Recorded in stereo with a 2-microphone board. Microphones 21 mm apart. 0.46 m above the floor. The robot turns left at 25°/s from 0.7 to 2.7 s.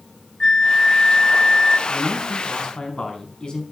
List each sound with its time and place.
0.4 s a flute: 30° left (ahead or behind), 0.7 m; by 1.8 s 25° left (ahead or behind), 0.7 m
1.9 s a man speaking: 25° left (ahead or behind), 4.5 m; by 3.6 s 45° left (ahead or behind), 4.5 m